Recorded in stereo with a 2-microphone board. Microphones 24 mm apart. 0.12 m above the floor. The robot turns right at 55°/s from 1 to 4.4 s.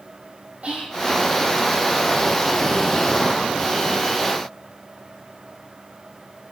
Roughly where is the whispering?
Right.